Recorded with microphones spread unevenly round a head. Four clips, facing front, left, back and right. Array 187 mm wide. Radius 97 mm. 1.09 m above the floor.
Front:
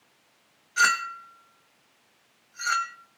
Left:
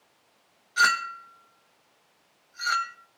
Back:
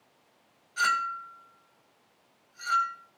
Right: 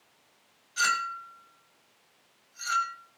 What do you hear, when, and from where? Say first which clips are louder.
0.8 s a clink: left 5 dB, front 3 dB; 40° left, 1.8 m